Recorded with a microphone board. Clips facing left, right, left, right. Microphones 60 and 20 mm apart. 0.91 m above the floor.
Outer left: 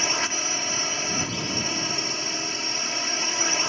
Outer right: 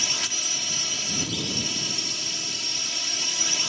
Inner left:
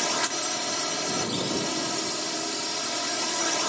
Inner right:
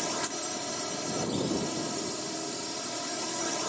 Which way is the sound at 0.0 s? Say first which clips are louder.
Outer left 5 dB, inner left 6 dB; 35° left (ahead or behind).